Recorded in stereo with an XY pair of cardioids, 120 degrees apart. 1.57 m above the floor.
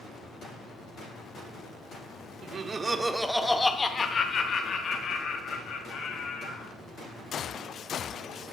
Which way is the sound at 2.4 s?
45° right.